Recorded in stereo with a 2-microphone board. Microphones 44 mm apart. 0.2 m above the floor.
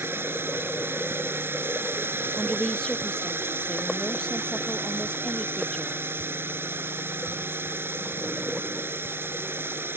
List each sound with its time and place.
0.0 s a drone: 60° right (ahead or behind)
2.4 s a woman speaking: 20° left (ahead or behind)